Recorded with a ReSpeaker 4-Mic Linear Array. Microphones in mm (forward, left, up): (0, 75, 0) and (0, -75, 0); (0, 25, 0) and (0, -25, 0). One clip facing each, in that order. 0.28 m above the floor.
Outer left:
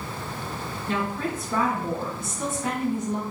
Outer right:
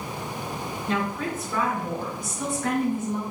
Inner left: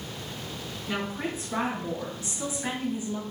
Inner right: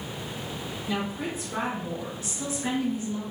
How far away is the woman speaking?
About 2.5 m.